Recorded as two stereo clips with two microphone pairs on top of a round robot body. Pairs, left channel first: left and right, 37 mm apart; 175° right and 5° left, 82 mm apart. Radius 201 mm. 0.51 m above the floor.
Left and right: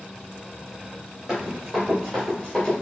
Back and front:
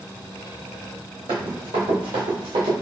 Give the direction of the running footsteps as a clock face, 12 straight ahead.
1 o'clock.